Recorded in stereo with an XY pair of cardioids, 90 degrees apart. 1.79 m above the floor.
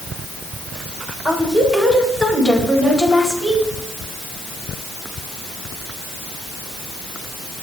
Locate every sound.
1.2 s a woman speaking: 15° right, 8 m